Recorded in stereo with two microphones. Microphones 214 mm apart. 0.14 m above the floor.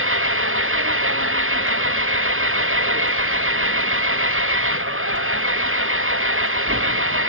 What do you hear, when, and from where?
0.0 s an engine running: 75° right (ahead or behind)